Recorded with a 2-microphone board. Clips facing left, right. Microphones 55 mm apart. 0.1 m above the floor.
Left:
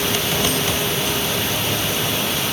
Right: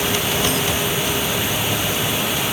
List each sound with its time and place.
Only background noise.